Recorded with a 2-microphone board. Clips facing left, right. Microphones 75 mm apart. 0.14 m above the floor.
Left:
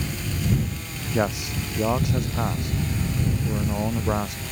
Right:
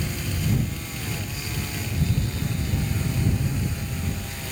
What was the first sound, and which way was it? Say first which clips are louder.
A man speaking: left 8 dB; 75° left (ahead or behind).